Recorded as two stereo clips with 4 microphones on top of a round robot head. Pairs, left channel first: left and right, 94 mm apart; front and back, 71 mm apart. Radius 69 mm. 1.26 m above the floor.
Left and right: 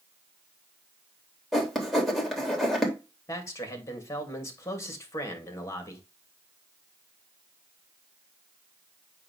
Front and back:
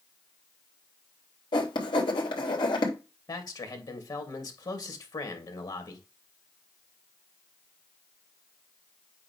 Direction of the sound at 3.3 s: 30° left.